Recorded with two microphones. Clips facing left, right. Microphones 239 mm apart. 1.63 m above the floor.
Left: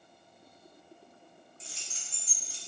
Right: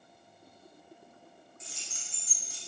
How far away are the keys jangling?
About 0.7 m.